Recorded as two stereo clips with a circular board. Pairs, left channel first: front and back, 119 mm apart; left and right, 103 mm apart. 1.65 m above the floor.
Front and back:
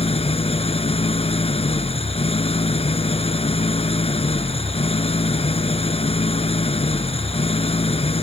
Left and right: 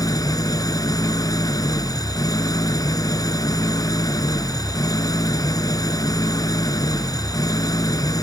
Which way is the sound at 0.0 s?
35° left.